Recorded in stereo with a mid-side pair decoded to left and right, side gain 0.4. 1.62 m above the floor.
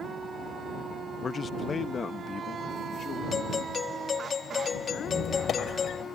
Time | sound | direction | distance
1.2 | a man speaking | 40° left | ?
3.3 | a doorbell | 50° left | ?
5.0 | a squeak | 60° left | ?